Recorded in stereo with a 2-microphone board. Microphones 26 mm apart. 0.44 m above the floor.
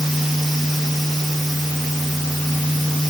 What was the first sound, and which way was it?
Only background noise.